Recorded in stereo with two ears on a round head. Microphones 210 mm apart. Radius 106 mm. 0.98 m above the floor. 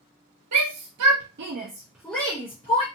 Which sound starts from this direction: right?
A shout, at 0.5 s.